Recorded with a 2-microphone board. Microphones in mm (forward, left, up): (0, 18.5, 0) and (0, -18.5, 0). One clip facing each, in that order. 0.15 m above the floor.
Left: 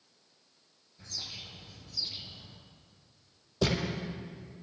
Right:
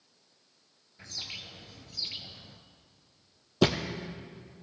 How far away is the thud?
About 1.8 m.